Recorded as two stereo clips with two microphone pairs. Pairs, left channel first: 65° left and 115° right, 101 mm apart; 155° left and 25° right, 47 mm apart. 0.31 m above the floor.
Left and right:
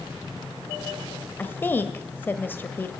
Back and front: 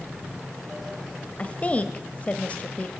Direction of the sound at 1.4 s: 120° left.